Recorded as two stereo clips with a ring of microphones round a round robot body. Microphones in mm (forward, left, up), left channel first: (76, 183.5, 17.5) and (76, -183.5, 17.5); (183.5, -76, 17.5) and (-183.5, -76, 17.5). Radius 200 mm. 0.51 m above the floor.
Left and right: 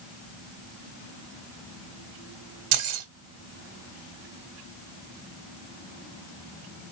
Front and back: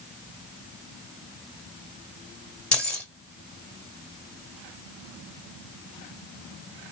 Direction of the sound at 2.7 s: 85° right.